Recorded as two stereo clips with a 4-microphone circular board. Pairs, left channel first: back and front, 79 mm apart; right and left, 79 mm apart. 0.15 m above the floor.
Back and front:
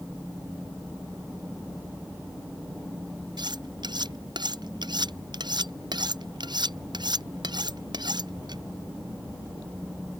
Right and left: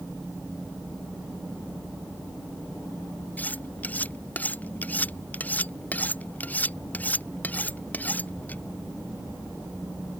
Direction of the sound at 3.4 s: 20° right.